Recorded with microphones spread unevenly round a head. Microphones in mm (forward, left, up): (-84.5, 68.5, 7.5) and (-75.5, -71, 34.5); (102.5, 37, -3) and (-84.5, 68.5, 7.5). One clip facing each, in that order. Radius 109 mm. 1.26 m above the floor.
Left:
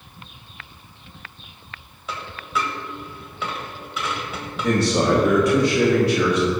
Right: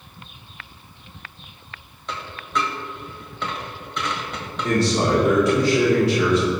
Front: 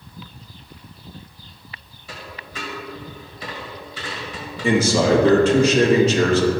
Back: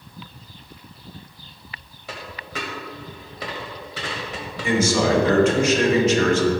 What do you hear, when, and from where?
2.1 s a dropped coin: 175° right, 1.7 m
4.6 s a man speaking: 50° left, 2 m